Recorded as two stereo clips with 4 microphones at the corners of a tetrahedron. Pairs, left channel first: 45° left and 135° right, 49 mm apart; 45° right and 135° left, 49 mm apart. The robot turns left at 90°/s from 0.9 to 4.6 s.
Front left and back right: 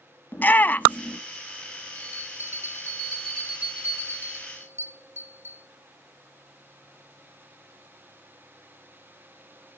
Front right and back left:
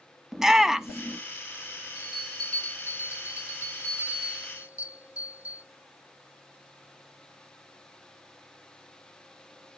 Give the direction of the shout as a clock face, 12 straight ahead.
10 o'clock.